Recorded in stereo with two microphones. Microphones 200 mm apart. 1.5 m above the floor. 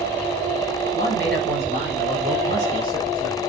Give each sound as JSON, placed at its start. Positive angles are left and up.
{"t": 0.9, "sound": "a man speaking", "side_deg": -55, "distance_m": 7.5}